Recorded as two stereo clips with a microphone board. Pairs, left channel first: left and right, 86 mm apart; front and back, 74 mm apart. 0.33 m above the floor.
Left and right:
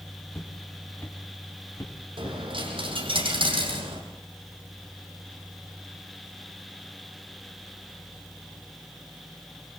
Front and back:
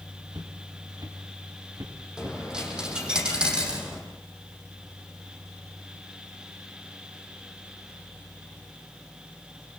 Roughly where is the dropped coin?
Right.